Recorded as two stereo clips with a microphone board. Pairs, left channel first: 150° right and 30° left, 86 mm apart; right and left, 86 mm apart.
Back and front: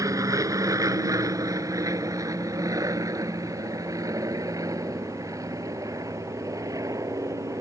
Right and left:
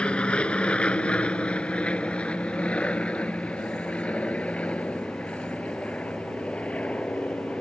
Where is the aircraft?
15° right.